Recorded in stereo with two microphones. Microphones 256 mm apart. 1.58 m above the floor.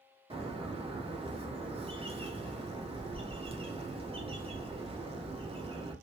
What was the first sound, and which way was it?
A bird, 20° right (ahead or behind).